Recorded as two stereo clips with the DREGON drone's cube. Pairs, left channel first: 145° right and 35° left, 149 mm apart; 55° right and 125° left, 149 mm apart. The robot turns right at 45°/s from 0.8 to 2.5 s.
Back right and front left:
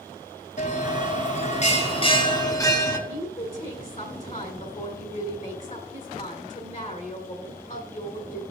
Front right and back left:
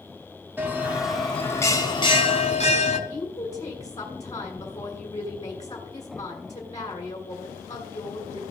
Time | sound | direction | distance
0.6 | a bell | 160° right | 1.1 m
3.1 | a woman speaking | 115° right | 2 m